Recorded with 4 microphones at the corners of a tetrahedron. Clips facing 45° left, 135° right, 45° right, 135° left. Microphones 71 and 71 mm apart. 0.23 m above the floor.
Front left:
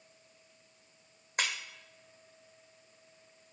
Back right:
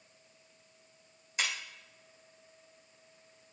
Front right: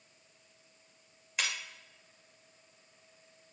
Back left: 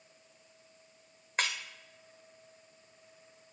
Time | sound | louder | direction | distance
1.4 | breaking glass | front left 1 dB, back left 3 dB | 80° left | 1.8 m